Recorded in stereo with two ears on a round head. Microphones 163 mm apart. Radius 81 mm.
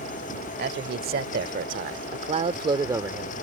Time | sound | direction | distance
0.6 | a man speaking | 60° right (ahead or behind) | ?